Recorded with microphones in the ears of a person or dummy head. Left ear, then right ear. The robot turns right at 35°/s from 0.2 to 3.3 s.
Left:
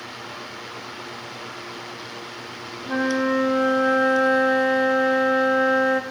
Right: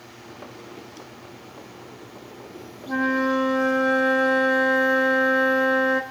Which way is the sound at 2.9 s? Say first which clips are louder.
Even; 20° left (ahead or behind).